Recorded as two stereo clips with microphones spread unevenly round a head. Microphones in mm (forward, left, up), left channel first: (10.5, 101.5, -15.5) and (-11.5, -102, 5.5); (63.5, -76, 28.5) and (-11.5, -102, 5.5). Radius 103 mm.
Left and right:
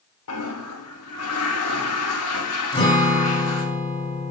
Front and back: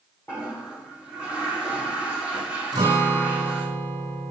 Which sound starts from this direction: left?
A toilet flushing, at 0.3 s.